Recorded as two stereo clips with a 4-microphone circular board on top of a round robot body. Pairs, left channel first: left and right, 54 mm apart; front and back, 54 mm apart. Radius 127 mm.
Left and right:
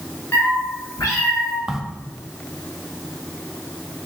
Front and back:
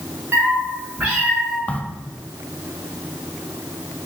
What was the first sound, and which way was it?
A cat meowing, 135° left.